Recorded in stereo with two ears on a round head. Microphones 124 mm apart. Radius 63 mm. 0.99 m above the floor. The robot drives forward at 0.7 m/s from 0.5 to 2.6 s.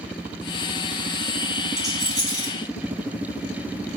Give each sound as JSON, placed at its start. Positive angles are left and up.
{"t": 1.8, "sound": "a rattle", "side_deg": -5, "distance_m": 2.0}